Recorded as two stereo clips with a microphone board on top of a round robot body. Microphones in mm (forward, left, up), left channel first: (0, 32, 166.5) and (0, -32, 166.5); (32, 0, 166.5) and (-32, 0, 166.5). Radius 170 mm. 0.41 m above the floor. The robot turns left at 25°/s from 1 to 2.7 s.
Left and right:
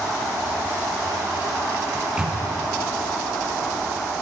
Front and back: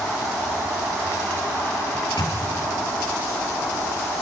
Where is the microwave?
5° right, 4.5 m; by 2.4 s 15° right, 4.5 m.